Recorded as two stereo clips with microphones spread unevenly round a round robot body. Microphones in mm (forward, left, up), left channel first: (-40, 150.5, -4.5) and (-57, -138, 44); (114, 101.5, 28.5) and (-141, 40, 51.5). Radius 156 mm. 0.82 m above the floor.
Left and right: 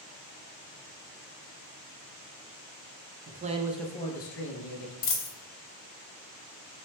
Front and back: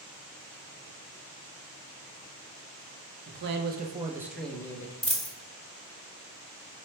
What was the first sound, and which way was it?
A man speaking, 145° right.